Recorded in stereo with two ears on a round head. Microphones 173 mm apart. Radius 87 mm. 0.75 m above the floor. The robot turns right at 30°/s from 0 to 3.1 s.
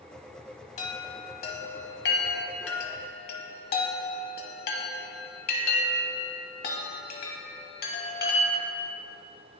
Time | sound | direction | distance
0.8 | a chime | 35° left (ahead or behind) | 0.9 m